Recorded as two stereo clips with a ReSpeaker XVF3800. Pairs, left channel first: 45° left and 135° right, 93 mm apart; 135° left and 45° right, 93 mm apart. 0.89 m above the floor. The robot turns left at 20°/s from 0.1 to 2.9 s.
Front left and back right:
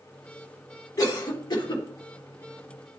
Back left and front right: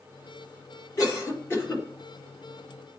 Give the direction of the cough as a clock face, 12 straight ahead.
9 o'clock.